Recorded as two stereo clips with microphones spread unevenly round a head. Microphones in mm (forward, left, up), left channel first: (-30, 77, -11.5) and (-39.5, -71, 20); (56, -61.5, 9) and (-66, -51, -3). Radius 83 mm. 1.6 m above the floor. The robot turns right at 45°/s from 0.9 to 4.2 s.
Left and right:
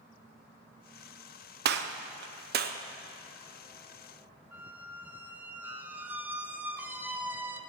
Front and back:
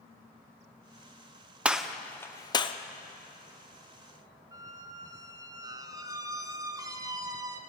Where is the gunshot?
100° right, 0.7 m; by 2.8 s 55° right, 0.7 m.